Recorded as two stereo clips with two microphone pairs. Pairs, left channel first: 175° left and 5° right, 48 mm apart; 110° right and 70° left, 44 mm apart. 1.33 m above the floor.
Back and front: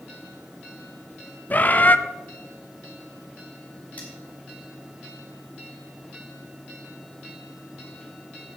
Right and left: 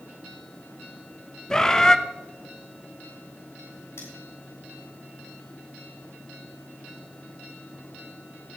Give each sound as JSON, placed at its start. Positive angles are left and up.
{"t": 1.5, "sound": "a bird", "azimuth_deg": -170, "distance_m": 0.6}
{"t": 4.0, "sound": "cutlery clinking", "azimuth_deg": -120, "distance_m": 5.0}